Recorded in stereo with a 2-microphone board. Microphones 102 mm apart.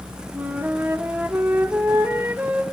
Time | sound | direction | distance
0.3 | a flute | 20° right (ahead or behind) | 1.4 m